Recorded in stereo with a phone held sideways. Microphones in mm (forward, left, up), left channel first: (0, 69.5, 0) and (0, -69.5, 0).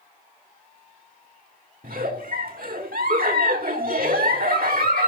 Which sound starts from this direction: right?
A giggle, at 1.8 s.